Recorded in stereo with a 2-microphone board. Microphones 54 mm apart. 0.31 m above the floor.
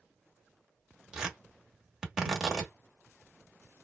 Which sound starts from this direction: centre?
Tearing paper, at 1.1 s.